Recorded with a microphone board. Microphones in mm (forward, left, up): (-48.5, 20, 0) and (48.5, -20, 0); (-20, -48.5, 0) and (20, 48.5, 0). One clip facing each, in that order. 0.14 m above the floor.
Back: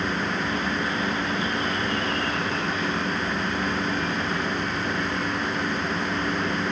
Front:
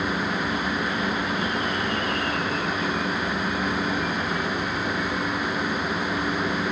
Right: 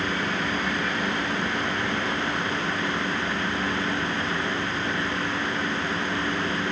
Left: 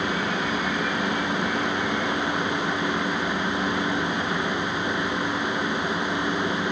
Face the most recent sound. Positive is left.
No sound to turn to.